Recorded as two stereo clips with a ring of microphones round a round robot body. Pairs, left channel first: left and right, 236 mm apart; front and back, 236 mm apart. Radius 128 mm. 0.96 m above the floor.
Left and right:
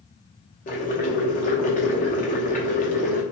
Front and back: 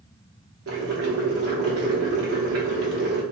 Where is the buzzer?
I don't hear a buzzer.